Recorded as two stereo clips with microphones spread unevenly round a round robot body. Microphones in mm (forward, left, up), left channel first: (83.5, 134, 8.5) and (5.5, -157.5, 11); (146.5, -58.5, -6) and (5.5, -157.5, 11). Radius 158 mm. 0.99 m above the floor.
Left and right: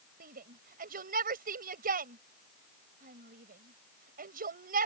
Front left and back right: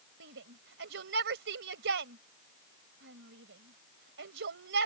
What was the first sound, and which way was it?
A shout, 170° right.